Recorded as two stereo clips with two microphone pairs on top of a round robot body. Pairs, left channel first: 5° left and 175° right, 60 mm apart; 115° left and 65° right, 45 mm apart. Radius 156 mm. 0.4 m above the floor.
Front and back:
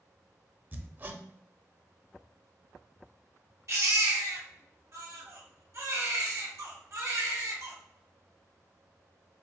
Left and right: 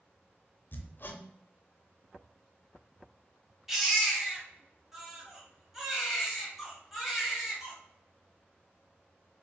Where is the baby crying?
145° right, 1.7 m.